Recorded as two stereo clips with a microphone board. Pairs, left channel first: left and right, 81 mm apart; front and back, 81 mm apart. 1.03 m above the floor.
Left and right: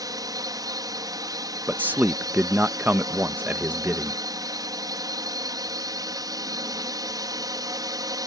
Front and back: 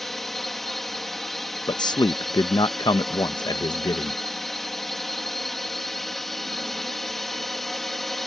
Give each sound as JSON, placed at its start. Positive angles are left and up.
{"t": 0.0, "sound": "a drone", "azimuth_deg": -90}
{"t": 1.7, "sound": "a man speaking", "azimuth_deg": -25}